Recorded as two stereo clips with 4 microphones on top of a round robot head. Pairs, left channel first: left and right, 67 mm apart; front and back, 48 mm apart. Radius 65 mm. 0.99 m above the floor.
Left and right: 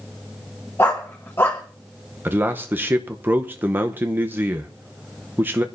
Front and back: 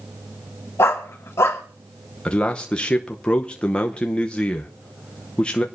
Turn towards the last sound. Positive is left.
turn(degrees=-55)